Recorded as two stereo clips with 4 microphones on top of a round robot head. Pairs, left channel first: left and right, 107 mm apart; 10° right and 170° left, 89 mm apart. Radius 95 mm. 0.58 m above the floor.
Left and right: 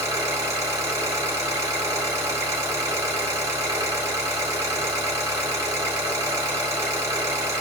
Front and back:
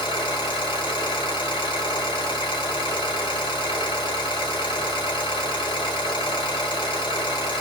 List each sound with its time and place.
0.0 s an engine running: 30° right, 1.5 m